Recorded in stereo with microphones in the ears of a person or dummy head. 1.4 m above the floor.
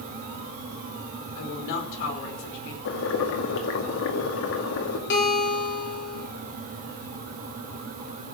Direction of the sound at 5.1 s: 55° left (ahead or behind).